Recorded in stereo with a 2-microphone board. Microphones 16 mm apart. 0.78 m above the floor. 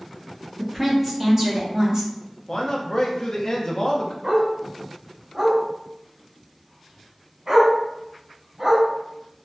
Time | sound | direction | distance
0.6 | a woman speaking | 10° left (ahead or behind) | 1.3 m
2.5 | a man speaking | 40° left (ahead or behind) | 0.8 m
4.2 | a dog barking | 40° right (ahead or behind) | 1.6 m